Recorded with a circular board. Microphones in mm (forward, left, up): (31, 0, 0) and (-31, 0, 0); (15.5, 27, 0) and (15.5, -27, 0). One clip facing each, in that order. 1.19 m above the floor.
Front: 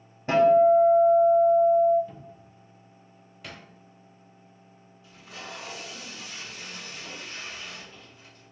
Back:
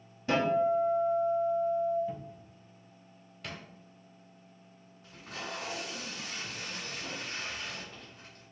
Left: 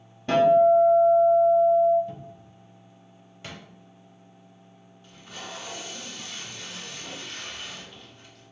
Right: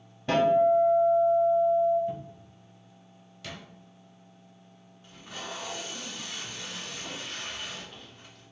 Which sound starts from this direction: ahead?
A guitar, at 0.3 s.